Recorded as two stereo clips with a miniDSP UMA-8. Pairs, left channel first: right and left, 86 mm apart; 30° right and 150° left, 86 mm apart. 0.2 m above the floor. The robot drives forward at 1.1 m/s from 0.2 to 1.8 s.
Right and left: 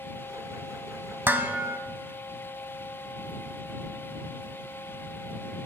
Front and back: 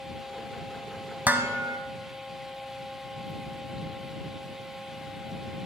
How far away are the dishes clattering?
About 0.7 m.